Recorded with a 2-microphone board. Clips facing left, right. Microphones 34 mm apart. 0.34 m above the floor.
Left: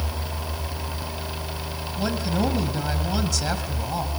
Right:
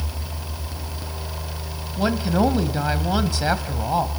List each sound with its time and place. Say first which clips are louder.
2.0 s a woman speaking: right 5 dB; 25° right (ahead or behind), 2.5 m